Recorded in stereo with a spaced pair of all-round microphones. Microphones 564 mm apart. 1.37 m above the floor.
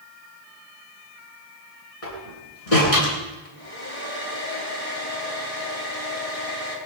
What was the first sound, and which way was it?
A door slam, 85° left.